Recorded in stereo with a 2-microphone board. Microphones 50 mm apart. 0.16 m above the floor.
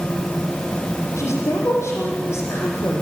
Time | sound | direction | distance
1.2 | a woman speaking | 60° left (ahead or behind) | 6.5 m